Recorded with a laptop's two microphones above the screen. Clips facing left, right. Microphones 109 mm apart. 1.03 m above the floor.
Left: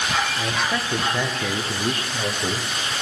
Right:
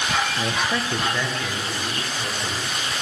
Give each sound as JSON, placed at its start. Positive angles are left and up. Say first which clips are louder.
{"t": 0.4, "sound": "a man speaking", "louder": "even", "side_deg": -20, "distance_m": 0.7}